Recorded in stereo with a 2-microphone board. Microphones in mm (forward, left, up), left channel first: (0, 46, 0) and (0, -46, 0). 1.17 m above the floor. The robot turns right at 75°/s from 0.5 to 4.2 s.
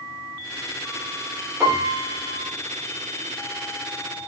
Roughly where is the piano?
Behind.